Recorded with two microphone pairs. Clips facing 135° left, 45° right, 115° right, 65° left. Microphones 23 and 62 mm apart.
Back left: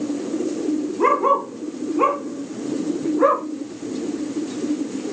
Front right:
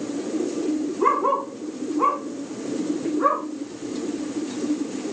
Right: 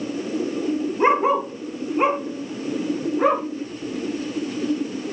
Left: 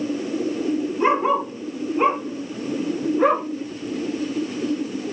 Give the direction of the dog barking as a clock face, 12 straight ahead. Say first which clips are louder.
Back left 3 dB, right 2 dB; 6 o'clock.